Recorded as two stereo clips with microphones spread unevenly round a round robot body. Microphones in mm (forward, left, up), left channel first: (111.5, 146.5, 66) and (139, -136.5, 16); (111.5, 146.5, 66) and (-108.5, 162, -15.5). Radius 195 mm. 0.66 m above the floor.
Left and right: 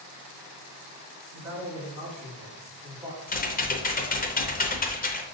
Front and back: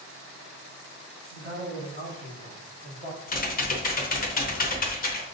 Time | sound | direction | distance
1.3 | a man speaking | 130° right | 2 m
3.3 | typing on a keyboard | 50° left | 0.8 m